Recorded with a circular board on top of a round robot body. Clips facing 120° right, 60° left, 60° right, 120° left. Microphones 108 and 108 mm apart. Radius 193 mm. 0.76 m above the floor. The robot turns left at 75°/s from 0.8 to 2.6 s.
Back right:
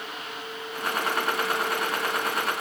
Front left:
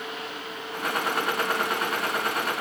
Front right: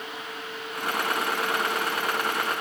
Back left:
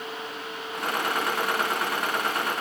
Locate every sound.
Only background noise.